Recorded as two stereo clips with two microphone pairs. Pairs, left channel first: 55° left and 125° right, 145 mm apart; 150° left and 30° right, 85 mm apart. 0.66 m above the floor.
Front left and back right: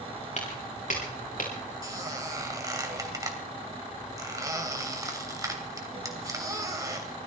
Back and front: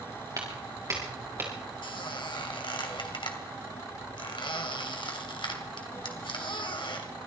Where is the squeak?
165° left, 2.5 m.